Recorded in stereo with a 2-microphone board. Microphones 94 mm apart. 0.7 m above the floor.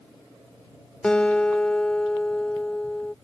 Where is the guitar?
10° left (ahead or behind).